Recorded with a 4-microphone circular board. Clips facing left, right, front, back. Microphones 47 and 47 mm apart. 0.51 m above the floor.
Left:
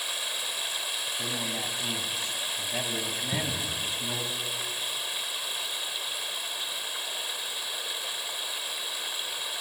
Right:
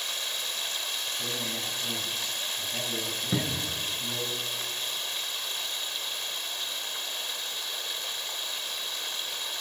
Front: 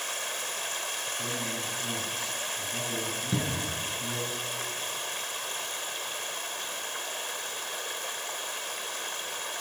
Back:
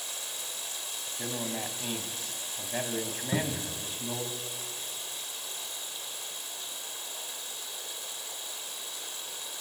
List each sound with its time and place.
0.0 s running water: 10° left, 1.8 m
1.2 s a man speaking: 150° left, 4 m
3.3 s a cupboard door: 115° right, 2.5 m